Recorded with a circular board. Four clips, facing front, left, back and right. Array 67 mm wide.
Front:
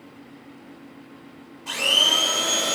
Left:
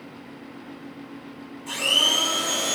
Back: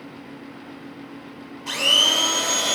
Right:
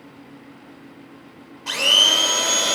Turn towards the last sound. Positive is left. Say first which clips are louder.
# right 5 dB, back 1 dB
turn(degrees=-105)